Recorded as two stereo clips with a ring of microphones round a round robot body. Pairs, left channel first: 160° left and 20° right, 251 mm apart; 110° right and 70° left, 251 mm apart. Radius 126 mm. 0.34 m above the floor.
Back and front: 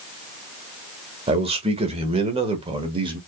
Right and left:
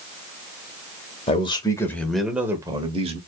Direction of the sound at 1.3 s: 70° right.